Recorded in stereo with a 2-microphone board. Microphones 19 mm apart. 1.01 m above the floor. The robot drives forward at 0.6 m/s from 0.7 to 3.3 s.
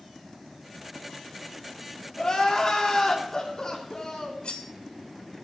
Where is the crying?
35° left (ahead or behind), 2.5 m; by 4.3 s 30° left (ahead or behind), 3 m.